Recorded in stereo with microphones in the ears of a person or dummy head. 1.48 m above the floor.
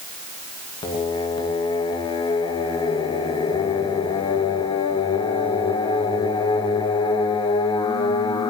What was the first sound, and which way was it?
Singing, 25° left (ahead or behind).